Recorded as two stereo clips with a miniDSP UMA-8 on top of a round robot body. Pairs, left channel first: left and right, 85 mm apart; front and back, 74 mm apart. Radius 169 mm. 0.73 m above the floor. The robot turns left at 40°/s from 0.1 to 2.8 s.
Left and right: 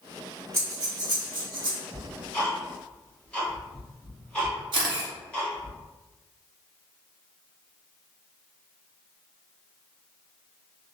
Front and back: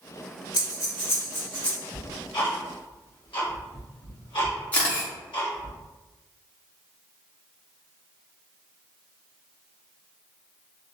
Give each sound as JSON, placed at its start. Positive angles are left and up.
{"t": 0.5, "sound": "breathing", "azimuth_deg": -30, "distance_m": 1.0}
{"t": 1.9, "sound": "ticking", "azimuth_deg": 50, "distance_m": 1.5}
{"t": 4.7, "sound": "a camera shutter", "azimuth_deg": -70, "distance_m": 0.8}